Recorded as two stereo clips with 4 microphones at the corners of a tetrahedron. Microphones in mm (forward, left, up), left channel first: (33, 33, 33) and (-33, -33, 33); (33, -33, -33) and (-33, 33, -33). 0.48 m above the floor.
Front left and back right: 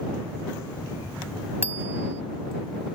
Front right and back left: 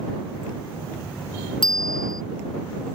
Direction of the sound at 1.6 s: 70° right.